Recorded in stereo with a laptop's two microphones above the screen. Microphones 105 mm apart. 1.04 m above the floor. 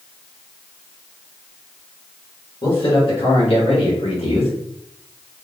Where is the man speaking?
50° left (ahead or behind), 2.0 m; by 4.5 s 65° left (ahead or behind), 1.9 m.